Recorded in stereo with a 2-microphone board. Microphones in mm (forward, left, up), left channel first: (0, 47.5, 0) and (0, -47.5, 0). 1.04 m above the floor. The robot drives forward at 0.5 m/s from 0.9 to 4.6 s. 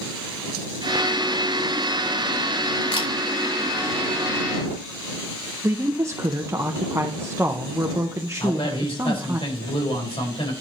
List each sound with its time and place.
2.9 s a camera shutter: 85° left, 4 m; by 3.1 s 80° left, 4 m
5.6 s a woman speaking: 30° right (ahead or behind), 0.8 m
8.4 s a man speaking: 70° left (ahead or behind), 4.5 m